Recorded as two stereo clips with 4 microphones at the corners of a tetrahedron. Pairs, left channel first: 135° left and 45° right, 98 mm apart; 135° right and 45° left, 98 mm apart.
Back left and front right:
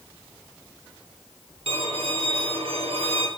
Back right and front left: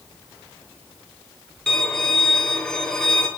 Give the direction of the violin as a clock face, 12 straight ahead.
2 o'clock.